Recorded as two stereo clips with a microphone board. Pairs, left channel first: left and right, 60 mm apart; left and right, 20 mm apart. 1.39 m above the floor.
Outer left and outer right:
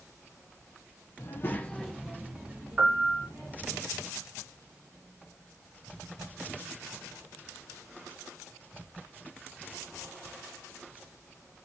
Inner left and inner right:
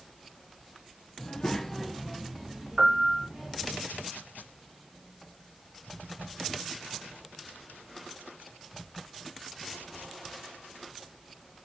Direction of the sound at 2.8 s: 5° right (ahead or behind).